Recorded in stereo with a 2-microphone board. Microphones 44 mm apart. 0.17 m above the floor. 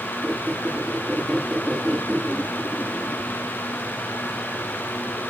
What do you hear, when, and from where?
0.2 s a squeak: centre (ahead or behind), 8 m